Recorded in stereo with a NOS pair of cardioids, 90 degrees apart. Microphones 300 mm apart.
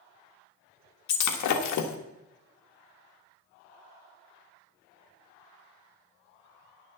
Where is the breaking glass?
70° left, 1.4 m.